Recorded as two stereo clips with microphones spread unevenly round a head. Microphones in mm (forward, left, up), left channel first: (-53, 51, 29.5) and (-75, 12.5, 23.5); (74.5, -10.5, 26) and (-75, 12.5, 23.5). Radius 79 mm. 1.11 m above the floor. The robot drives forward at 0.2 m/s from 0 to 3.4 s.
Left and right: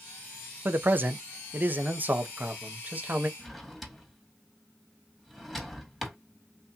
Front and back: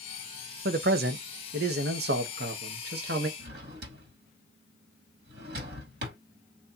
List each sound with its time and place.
0.7 s a man speaking: 160° right, 0.6 m; by 3.3 s 170° right, 1.1 m
3.4 s a drawer: 150° left, 1.9 m